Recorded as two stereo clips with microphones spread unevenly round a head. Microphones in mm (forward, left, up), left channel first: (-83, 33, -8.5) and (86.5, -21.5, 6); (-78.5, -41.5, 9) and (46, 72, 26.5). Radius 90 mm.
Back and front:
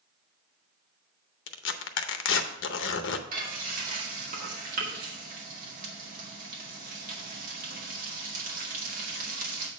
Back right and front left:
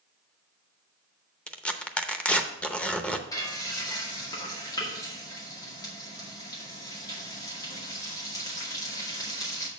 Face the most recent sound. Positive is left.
turn(degrees=-65)